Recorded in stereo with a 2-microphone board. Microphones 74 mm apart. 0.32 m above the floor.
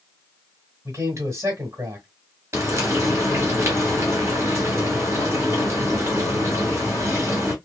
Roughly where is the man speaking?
Right.